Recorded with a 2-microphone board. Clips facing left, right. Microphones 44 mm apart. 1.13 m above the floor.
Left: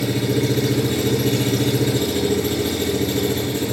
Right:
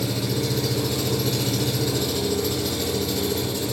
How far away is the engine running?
About 6 m.